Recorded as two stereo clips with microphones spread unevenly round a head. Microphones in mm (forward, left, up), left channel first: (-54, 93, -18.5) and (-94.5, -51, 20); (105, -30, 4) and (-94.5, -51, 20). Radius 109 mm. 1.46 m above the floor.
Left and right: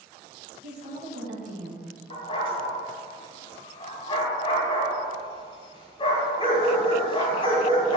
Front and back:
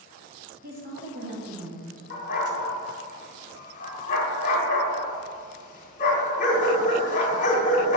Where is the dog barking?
10° left, 1.4 m.